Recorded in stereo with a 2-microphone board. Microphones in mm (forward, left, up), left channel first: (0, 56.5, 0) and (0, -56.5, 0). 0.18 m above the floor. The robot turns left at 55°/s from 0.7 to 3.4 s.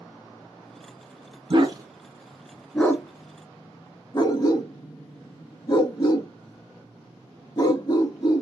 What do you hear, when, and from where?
1.5 s a dog barking: 45° right (ahead or behind), 0.7 m; by 8.4 s 35° left (ahead or behind), 0.7 m